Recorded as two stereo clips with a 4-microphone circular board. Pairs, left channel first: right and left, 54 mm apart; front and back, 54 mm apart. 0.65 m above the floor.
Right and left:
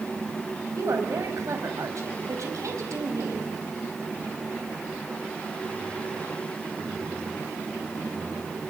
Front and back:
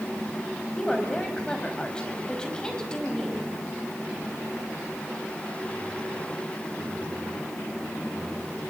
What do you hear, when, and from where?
0.8 s a woman speaking: 75° left, 4.5 m